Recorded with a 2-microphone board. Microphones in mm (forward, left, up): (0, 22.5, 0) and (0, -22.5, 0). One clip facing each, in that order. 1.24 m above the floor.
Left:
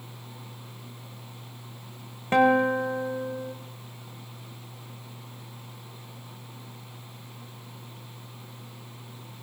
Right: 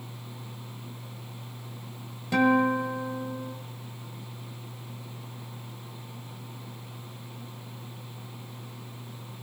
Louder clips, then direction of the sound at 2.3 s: Left 2 dB; 40° left (ahead or behind).